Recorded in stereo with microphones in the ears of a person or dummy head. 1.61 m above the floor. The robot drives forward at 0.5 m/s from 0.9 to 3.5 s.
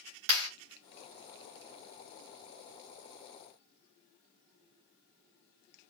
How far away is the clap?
About 3 m.